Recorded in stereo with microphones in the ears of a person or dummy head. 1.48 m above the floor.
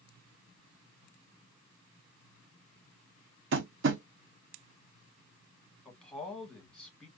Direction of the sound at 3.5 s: 65° right (ahead or behind).